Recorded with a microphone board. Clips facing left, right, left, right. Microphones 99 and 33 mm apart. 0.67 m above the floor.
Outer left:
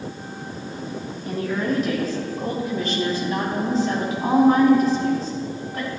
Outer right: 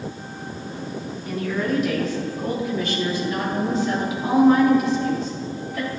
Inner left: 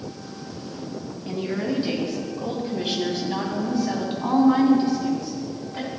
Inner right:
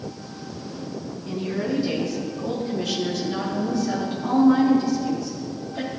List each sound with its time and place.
1.2 s a woman speaking: 40° left (ahead or behind), 3.5 m